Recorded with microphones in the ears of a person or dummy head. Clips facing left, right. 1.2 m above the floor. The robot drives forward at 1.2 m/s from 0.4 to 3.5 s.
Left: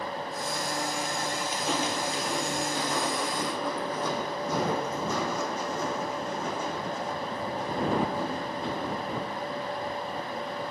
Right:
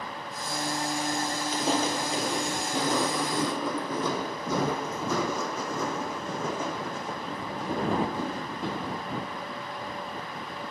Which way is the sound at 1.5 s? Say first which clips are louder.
Right 5 dB; 30° right (ahead or behind).